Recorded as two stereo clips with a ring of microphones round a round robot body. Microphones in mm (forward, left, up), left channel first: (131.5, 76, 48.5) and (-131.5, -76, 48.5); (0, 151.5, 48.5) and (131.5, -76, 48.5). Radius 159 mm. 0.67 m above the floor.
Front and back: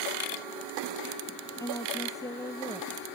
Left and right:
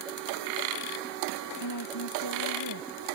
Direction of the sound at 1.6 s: 110° left.